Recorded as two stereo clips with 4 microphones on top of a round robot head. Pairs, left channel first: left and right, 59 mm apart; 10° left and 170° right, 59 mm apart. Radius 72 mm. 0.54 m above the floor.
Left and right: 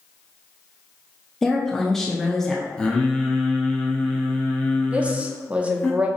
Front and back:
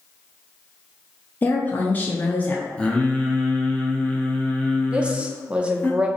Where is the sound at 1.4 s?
10° left, 0.7 m.